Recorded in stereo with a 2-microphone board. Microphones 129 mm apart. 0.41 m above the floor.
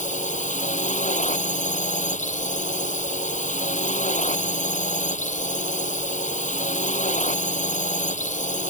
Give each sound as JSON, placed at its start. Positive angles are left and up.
{"t": 0.0, "sound": "a drone", "side_deg": 85}